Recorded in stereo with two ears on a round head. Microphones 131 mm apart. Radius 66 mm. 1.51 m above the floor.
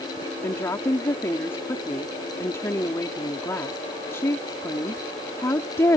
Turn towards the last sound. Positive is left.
turn(degrees=20)  # may be behind; listen again after turning